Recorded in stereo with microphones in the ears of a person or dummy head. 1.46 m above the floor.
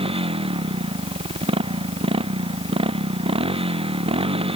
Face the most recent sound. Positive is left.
turn(degrees=-30)  # may be behind; listen again after turning